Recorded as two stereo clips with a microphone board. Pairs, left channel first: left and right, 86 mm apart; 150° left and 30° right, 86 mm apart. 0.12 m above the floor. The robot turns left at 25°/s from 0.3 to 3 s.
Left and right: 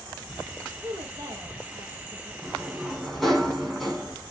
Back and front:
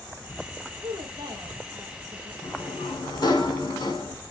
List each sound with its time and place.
0.8 s a woman speaking: 55° right, 3 m; by 2.3 s 90° right, 3 m
2.4 s a sliding door: 170° right, 7 m; by 4.1 s 175° left, 7 m